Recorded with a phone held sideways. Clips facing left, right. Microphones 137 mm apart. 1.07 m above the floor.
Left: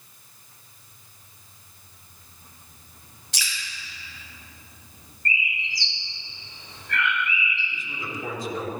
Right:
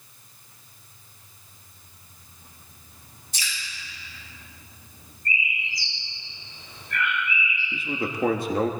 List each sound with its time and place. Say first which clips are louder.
3.3 s dripping: even; 90° left, 6 m
5.2 s a bird: even; 75° left (ahead or behind), 4.5 m
7.7 s a man speaking: right 7 dB; 60° right (ahead or behind), 1.7 m